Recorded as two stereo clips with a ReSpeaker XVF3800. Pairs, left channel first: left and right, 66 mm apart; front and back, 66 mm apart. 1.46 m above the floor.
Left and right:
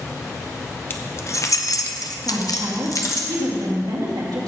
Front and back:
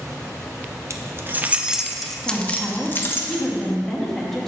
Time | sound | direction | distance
0.9 | keys jangling | 145° left | 0.9 m
2.2 | a woman speaking | 85° right | 2.5 m